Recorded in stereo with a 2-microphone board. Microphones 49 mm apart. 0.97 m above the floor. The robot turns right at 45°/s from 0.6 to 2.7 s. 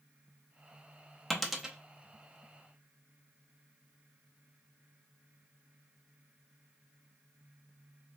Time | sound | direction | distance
1.3 | a dropped coin | 5° left (ahead or behind) | 0.5 m